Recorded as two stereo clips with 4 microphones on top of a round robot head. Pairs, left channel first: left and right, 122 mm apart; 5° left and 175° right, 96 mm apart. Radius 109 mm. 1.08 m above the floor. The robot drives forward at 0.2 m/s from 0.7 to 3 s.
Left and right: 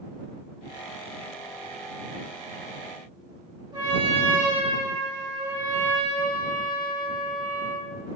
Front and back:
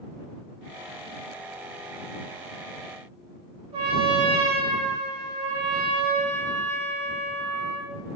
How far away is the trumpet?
About 1.2 m.